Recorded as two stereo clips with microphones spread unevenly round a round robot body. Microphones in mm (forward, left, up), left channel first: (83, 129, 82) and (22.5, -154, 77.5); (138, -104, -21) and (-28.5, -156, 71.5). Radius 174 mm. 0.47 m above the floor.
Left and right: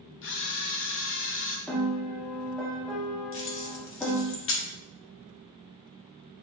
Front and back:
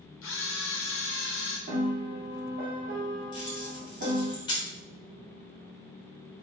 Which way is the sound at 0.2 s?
30° left.